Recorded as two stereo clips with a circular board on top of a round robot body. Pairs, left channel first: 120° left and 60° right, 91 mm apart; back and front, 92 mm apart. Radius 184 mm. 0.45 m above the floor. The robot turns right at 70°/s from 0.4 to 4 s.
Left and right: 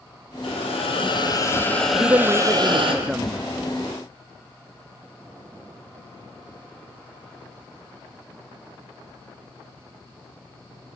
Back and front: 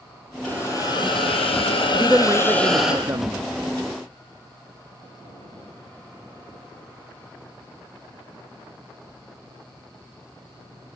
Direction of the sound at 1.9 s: 70° right.